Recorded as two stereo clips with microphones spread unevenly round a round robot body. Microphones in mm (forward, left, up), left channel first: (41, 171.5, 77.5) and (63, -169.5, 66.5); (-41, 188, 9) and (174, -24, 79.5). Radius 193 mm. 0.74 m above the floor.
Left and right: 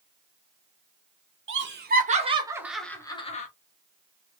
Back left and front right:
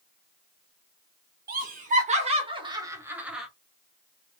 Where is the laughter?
110° right, 1.1 m; by 3.5 s 85° left, 0.9 m.